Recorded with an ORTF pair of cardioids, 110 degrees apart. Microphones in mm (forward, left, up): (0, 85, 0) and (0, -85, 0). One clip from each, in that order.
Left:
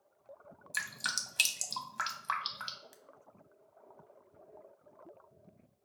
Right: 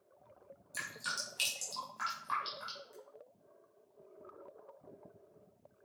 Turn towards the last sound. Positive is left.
turn(degrees=60)